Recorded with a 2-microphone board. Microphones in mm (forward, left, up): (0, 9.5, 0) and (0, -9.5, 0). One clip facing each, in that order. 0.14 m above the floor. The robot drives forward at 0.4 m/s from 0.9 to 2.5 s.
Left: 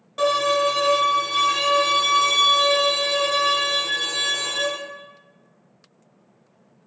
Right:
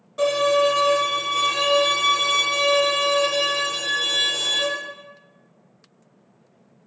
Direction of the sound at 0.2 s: 25° left (ahead or behind).